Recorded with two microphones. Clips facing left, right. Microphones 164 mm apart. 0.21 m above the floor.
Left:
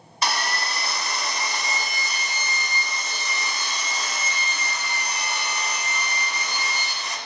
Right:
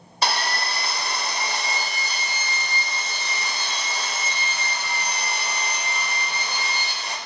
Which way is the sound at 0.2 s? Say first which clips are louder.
Right 1 dB; 30° right (ahead or behind).